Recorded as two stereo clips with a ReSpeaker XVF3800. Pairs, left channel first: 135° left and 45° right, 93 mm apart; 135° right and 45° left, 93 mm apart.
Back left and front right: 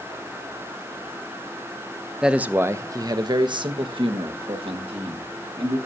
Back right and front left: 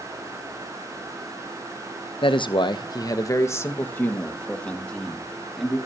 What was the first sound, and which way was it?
A man speaking, 125° right.